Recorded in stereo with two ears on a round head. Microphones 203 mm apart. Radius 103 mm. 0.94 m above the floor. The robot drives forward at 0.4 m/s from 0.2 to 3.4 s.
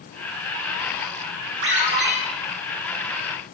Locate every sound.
1.6 s a ringtone: 55° right (ahead or behind), 1.8 m; by 2.1 s 50° right (ahead or behind), 2.0 m